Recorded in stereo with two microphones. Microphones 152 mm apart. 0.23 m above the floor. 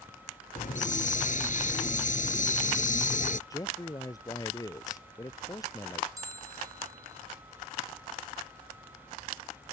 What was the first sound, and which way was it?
A hiss, 60° left (ahead or behind).